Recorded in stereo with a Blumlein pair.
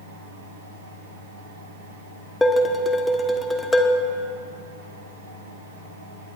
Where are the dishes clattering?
10° left, 1.1 m.